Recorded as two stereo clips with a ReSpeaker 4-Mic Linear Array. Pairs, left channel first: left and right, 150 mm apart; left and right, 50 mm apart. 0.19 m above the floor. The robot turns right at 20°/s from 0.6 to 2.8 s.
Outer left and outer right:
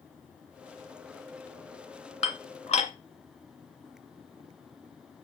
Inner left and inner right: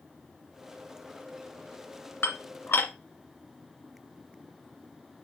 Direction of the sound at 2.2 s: 50° left (ahead or behind).